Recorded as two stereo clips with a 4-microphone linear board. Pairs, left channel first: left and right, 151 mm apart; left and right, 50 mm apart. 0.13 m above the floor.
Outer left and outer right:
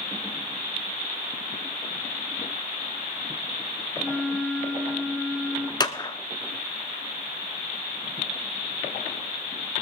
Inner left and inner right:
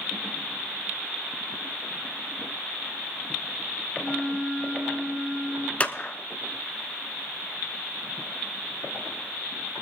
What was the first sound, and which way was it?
A flute, 5° left (ahead or behind).